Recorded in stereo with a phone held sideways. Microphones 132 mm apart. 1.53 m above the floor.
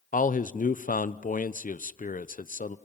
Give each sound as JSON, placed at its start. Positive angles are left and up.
{"t": 0.1, "sound": "a man speaking", "side_deg": 85, "distance_m": 0.7}